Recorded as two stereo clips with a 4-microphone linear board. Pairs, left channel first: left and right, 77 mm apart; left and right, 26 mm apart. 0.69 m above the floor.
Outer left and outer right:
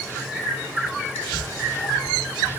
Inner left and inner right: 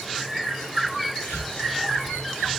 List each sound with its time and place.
1.2 s whispering: 55° left (ahead or behind), 1.4 m